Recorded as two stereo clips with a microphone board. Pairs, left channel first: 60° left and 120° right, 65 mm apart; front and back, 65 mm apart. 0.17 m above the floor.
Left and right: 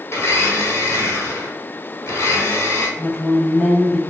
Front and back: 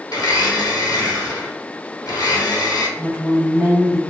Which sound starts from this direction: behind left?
A woman speaking, at 3.0 s.